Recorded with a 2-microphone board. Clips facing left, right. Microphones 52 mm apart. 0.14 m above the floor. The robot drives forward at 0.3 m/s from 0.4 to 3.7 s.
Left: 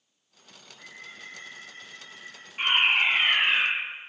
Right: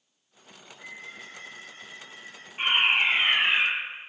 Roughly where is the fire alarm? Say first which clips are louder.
Even; centre.